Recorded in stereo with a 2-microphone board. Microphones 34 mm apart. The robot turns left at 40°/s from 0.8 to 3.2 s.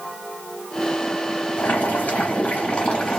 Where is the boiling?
85° left, 1.6 m; by 3.2 s 20° left, 1.6 m.